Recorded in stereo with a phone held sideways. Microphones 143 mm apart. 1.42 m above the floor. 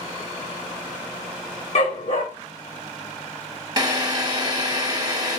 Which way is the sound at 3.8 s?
30° right (ahead or behind).